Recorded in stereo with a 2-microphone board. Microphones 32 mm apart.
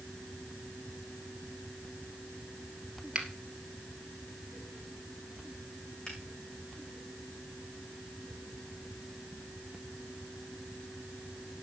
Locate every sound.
3.1 s a finger snap: 30° right (ahead or behind), 2.5 m
6.1 s a finger snap: 30° left (ahead or behind), 6 m